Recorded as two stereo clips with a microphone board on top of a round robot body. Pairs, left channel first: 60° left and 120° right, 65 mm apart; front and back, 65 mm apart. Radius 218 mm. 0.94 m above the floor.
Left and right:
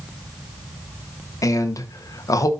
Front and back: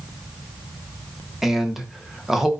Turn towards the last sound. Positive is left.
turn(degrees=95)